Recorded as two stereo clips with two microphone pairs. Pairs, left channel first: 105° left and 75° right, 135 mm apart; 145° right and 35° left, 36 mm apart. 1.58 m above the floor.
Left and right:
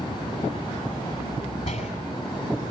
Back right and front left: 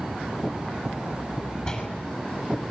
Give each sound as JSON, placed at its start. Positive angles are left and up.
{"t": 1.6, "sound": "a door slam", "azimuth_deg": 150, "distance_m": 8.0}